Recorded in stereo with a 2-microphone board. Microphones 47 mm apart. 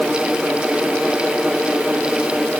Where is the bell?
No bell in this recording.